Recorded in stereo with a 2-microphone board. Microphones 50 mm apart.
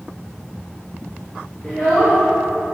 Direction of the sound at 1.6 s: 25° left (ahead or behind).